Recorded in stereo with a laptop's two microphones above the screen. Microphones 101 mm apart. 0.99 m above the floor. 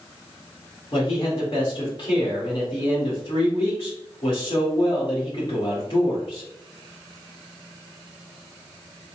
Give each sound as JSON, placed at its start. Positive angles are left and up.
{"t": 0.9, "sound": "a man speaking", "side_deg": 45, "distance_m": 2.0}